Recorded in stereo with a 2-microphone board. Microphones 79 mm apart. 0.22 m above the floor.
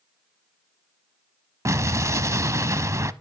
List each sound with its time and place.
1.6 s an explosion: 40° right (ahead or behind), 0.7 m